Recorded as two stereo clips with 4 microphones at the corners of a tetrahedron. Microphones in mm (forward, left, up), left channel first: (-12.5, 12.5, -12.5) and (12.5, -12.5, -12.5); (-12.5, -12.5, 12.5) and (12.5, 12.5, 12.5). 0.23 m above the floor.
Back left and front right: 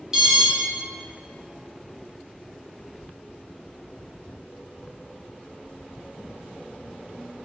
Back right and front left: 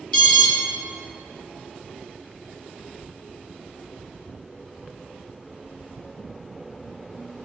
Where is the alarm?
100° right, 0.8 m.